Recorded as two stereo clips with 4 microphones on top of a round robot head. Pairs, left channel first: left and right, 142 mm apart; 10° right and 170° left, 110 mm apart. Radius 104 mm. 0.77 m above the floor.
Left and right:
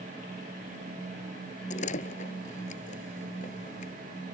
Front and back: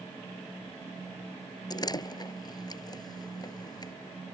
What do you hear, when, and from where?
1.7 s a door slam: 45° left